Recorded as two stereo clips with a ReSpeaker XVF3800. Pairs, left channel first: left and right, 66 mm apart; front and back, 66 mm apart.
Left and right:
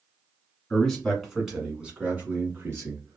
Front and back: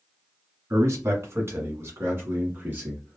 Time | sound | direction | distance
0.7 | a man speaking | 165° left | 1.4 m